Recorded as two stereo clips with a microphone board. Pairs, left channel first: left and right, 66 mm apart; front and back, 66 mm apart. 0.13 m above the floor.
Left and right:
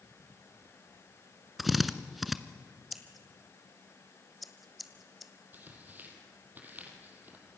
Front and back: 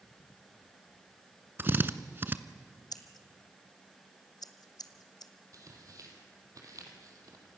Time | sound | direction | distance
1.6 | a drill | straight behind | 0.9 m
2.9 | scissors | straight ahead | 1.3 m
5.5 | tearing paper | 150° right | 3.5 m